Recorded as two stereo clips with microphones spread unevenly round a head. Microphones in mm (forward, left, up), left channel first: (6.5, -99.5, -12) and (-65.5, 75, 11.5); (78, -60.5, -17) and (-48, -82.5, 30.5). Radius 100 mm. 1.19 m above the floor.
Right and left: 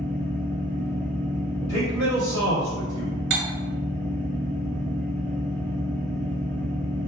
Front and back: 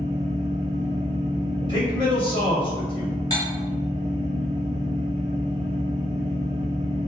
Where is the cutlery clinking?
85° left, 0.9 m.